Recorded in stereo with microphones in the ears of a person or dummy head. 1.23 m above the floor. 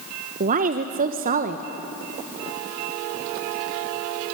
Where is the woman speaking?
45° right (ahead or behind), 1.0 m.